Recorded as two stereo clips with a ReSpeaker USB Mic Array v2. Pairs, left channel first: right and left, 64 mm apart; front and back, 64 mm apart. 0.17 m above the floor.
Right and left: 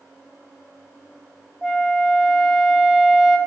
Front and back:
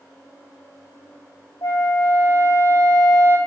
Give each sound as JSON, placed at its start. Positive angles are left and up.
{"t": 1.6, "sound": "a flute", "azimuth_deg": -5, "distance_m": 1.6}